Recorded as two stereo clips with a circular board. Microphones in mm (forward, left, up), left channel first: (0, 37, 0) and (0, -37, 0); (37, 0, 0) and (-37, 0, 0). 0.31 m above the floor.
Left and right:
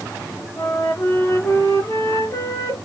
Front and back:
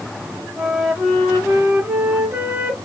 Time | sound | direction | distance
0.6 | a flute | 110° left | 1.4 m